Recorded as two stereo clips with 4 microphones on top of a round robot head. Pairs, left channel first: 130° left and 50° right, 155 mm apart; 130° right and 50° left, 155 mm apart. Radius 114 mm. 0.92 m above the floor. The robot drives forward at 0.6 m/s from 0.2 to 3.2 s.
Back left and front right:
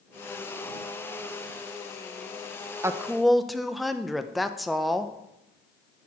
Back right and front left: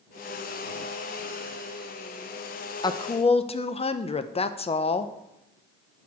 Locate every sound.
2.8 s a woman speaking: 105° right, 0.5 m; by 5.1 s 140° right, 0.6 m